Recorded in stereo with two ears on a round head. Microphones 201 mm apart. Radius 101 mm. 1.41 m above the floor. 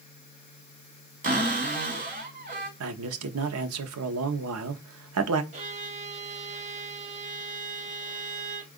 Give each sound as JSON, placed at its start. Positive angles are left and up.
{"t": 1.2, "sound": "a cupboard door", "side_deg": -40, "distance_m": 2.0}
{"t": 2.8, "sound": "a man speaking", "side_deg": -75, "distance_m": 0.8}
{"t": 5.5, "sound": "a violin", "side_deg": -30, "distance_m": 0.9}